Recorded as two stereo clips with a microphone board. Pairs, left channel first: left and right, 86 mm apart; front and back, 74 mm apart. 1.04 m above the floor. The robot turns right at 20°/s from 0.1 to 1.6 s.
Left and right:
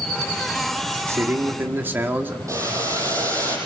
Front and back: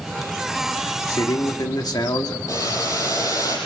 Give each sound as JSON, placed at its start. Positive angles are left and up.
{"t": 1.1, "sound": "a man speaking", "azimuth_deg": -35, "distance_m": 2.0}
{"t": 2.5, "sound": "boiling", "azimuth_deg": -40, "distance_m": 8.0}